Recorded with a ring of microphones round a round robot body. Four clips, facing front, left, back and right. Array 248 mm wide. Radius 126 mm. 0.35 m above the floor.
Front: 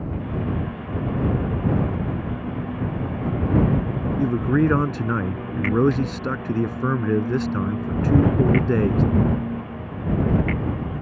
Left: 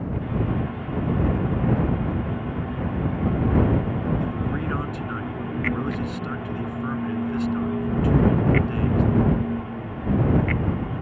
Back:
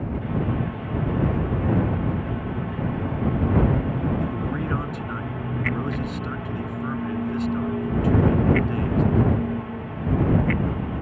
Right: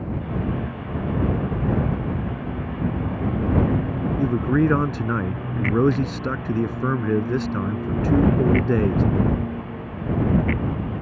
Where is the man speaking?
45° right.